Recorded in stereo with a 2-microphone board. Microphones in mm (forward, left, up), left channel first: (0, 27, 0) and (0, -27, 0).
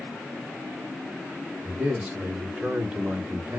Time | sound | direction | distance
1.6 | a man speaking | 25° right (ahead or behind) | 1.8 m